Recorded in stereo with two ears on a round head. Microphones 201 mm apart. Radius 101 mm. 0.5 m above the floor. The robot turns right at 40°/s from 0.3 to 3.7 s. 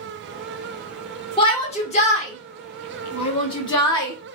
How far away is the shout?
About 1.1 m.